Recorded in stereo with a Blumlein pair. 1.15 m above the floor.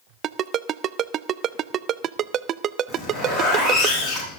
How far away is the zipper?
About 9 m.